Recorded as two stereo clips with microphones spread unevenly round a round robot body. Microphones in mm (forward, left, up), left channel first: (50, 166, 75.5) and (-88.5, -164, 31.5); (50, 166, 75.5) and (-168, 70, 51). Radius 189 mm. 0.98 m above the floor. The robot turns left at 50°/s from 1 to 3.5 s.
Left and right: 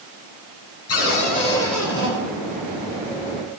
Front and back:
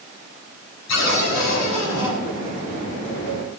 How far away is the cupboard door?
About 4 m.